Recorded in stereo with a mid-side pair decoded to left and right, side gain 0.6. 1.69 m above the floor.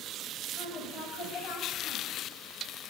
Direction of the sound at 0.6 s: 35° left.